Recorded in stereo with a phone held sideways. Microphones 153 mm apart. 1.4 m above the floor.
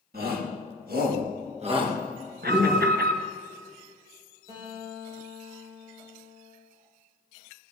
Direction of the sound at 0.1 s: 75° right (ahead or behind).